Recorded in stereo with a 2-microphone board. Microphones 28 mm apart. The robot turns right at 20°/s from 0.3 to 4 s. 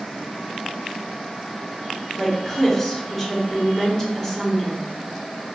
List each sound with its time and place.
2.2 s a woman speaking: centre (ahead or behind), 1.3 m; by 4.8 s 20° left (ahead or behind), 1.3 m